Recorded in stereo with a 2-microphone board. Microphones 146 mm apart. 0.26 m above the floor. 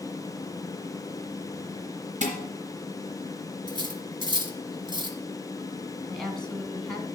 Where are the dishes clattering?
55° right (ahead or behind), 3 m.